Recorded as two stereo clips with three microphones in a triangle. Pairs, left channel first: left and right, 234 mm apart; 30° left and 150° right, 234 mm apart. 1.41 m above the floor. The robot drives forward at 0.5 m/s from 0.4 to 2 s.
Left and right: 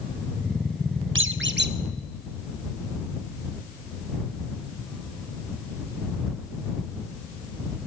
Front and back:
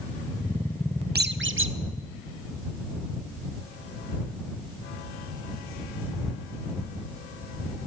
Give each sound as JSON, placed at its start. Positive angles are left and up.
{"t": 1.1, "sound": "a squeak", "azimuth_deg": -105, "distance_m": 0.5}